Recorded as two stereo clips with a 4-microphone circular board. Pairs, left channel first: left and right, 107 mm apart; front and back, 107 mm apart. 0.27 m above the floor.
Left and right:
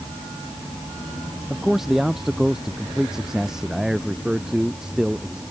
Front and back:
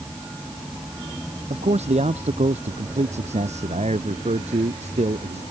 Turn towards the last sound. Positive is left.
turn(degrees=-175)